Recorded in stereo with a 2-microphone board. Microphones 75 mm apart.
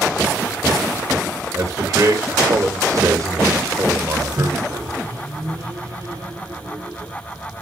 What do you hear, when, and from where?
1.5 s a man speaking: 45° right (ahead or behind), 3.5 m
4.4 s a microwave: 40° right (ahead or behind), 2.5 m